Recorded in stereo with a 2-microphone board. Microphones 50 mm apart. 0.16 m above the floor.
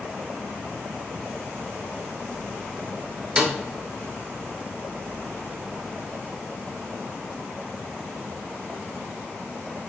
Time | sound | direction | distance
3.4 | a snare drum | 15° right (ahead or behind) | 0.9 m